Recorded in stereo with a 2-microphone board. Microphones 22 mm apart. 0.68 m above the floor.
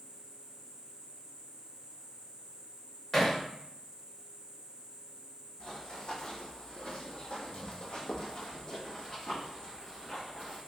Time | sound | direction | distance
0.0 | an insect | 45° right (ahead or behind) | 0.9 m
3.1 | hammering | 20° left (ahead or behind) | 0.9 m
5.6 | running footsteps | 35° left (ahead or behind) | 1.3 m